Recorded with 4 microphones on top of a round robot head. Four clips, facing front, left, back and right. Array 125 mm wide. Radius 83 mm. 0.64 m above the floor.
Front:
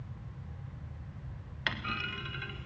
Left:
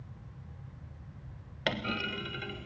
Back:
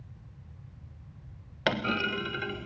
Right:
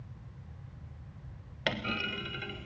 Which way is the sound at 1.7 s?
175° left.